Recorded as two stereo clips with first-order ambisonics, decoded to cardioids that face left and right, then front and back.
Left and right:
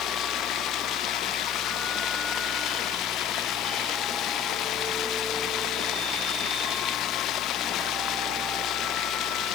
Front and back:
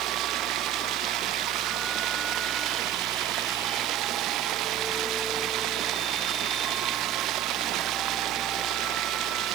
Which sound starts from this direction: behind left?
Running water, at 0.0 s.